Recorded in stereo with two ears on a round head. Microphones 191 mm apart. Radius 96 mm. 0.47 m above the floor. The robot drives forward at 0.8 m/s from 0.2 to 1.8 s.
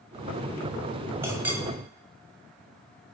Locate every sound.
1.2 s a clink: 10° right (ahead or behind), 1.5 m